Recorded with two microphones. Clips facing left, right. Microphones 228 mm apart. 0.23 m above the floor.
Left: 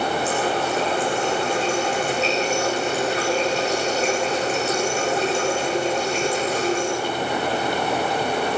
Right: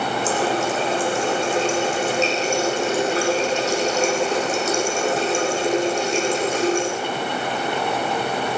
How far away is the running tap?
About 8.5 m.